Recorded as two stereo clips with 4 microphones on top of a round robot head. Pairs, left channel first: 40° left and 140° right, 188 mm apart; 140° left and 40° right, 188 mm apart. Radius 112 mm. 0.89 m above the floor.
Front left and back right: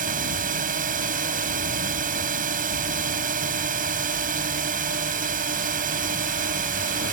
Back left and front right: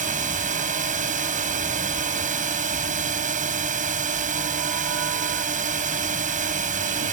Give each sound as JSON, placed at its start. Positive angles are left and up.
{"t": 0.0, "sound": "a drone", "azimuth_deg": -90}